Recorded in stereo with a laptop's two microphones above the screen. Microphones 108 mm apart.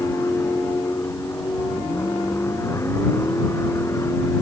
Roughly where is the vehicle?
Left.